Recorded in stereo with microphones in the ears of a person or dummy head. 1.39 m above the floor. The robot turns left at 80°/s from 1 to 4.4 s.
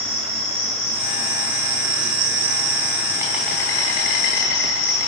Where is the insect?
10° left, 2.5 m; by 5.1 s 95° left, 2.5 m.